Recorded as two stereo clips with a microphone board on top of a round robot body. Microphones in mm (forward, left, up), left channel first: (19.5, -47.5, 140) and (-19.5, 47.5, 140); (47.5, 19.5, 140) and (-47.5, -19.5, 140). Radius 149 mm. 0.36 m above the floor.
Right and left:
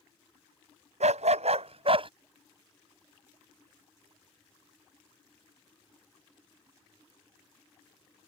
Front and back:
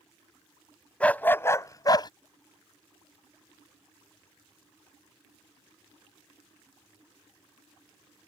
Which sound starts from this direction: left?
A dog barking, at 1.0 s.